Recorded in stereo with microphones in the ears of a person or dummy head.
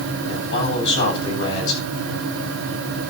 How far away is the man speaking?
About 8.5 m.